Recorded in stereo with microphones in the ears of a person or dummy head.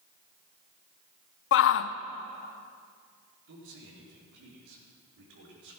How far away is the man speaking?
About 4 m.